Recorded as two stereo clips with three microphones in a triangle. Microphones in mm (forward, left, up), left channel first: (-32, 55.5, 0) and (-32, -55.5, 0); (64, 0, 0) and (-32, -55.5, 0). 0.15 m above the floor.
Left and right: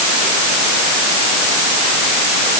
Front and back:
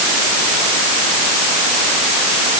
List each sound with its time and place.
Only background noise.